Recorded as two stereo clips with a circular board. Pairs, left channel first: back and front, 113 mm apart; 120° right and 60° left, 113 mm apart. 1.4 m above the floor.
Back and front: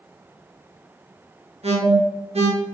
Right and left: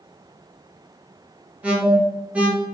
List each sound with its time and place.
1.6 s an alarm: 20° right, 3 m